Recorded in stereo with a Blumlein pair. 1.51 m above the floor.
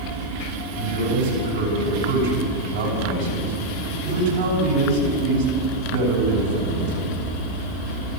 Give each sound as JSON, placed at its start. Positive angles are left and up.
{"t": 0.7, "sound": "a man speaking", "azimuth_deg": -55, "distance_m": 9.0}